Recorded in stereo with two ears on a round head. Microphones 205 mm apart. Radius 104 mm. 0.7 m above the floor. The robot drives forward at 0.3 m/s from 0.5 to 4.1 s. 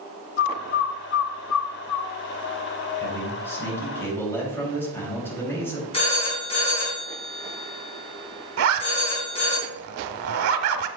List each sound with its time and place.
0.4 s a bird: 45° left (ahead or behind), 0.7 m; by 2.1 s 85° left, 0.5 m
3.0 s a man speaking: 10° left (ahead or behind), 4 m
5.9 s a phone ringing: 25° left (ahead or behind), 5 m
8.6 s a zipper: 65° right (ahead or behind), 0.9 m